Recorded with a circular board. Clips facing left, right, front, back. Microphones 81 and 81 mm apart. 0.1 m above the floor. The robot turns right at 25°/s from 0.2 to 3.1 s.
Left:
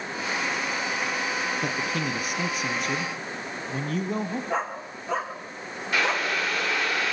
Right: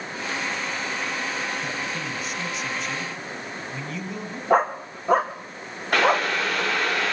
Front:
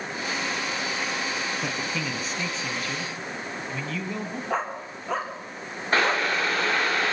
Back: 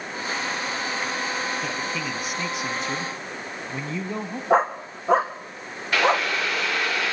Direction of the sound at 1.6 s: 85° left.